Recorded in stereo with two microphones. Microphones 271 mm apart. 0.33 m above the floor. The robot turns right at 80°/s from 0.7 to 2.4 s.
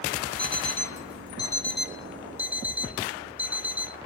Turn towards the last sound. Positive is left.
turn(degrees=-175)